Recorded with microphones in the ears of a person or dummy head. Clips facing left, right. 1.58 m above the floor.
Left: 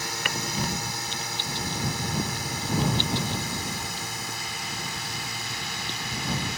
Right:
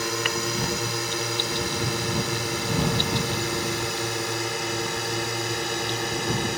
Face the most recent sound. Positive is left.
turn(degrees=-50)  # may be behind; listen again after turning